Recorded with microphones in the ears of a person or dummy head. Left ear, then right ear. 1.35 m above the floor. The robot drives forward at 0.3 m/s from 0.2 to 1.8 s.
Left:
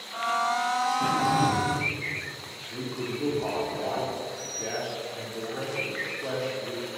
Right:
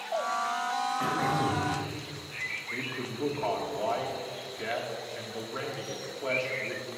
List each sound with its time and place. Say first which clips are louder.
1.0 s throat clearing: left 5 dB; 30° right (ahead or behind), 2.5 m
2.7 s a man speaking: left 1 dB; 80° right, 2.5 m